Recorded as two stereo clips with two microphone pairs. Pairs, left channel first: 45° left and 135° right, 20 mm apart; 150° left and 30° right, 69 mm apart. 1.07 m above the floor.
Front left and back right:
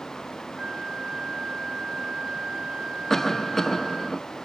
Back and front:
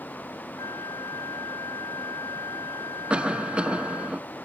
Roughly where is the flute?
Behind.